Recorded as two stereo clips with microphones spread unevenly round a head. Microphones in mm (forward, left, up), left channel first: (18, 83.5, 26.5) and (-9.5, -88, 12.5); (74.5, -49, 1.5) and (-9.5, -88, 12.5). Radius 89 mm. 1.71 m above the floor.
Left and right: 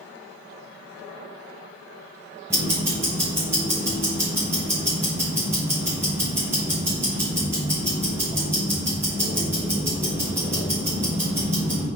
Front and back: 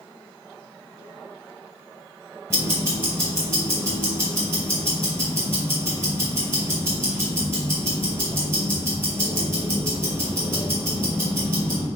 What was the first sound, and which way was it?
Ticking, 175° right.